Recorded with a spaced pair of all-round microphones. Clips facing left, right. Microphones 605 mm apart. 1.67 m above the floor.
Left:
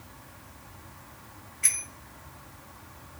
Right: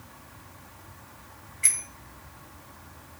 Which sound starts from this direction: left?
A bicycle bell, at 1.6 s.